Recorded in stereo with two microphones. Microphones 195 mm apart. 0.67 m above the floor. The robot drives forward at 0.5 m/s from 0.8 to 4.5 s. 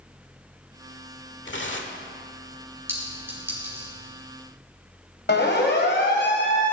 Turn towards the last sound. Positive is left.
turn(degrees=65)  # may be behind; listen again after turning